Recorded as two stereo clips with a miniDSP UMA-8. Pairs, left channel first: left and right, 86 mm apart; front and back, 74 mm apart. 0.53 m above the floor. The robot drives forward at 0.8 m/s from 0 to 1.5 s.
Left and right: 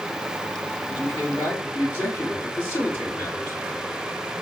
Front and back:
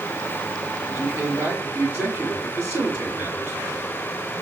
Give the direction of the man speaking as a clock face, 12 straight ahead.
8 o'clock.